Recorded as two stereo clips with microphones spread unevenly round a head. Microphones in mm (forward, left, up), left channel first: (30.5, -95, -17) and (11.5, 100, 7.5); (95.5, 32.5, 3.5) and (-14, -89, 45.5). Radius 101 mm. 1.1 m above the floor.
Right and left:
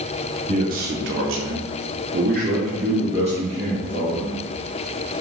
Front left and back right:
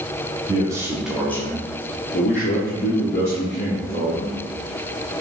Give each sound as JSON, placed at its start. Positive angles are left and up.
{"t": 0.5, "sound": "a man speaking", "azimuth_deg": 155, "distance_m": 0.8}